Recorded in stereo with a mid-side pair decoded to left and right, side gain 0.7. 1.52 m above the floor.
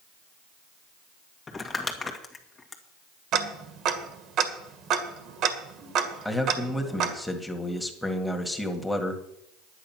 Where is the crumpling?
20° left, 1.9 m.